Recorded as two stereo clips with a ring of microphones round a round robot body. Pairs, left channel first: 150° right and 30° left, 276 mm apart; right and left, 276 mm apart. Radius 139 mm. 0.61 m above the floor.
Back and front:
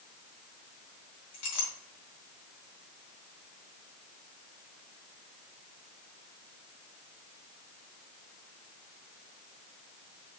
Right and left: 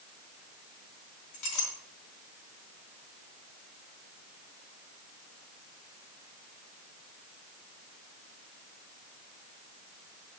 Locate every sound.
1.3 s a clink: 115° right, 4 m